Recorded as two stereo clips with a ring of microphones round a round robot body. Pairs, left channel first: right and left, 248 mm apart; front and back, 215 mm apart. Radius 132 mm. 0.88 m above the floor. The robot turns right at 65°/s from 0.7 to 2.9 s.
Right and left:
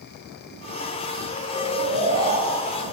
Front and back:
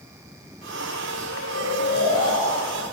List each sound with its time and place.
1.5 s snoring: 30° right, 9.5 m; by 2.8 s 60° left, 9.5 m